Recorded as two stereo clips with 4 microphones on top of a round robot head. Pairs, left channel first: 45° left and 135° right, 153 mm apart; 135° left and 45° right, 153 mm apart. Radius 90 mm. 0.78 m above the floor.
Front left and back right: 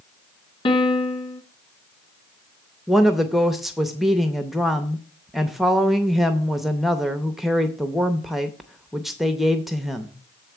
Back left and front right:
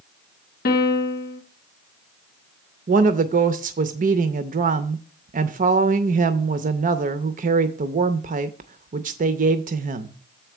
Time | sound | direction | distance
0.7 | a piano | 105° left | 0.7 m
2.9 | a woman speaking | 50° right | 0.6 m